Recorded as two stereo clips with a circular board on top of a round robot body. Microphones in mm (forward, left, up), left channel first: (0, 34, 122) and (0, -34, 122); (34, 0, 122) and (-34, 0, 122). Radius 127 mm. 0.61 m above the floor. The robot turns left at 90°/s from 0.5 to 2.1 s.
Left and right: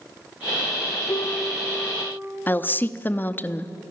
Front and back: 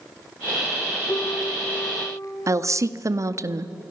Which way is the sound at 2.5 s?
145° left.